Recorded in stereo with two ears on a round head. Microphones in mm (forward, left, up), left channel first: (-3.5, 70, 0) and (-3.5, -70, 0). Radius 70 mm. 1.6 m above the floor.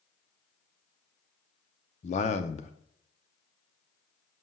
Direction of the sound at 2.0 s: 45° left (ahead or behind).